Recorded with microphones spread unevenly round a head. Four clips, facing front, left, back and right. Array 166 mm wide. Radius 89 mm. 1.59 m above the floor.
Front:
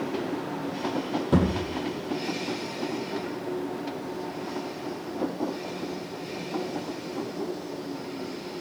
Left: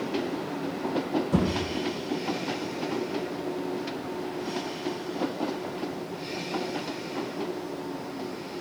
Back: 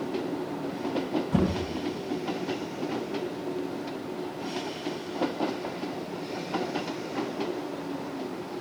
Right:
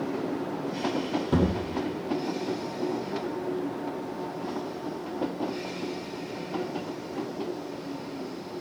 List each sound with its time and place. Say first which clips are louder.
1.3 s a thud: right 2 dB, front 4 dB; 25° right, 9 m